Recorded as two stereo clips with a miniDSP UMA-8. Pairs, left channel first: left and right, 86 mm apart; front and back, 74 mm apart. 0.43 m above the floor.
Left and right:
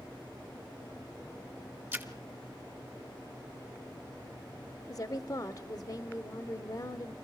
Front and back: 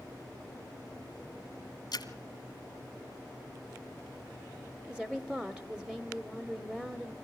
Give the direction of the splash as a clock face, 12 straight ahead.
1 o'clock.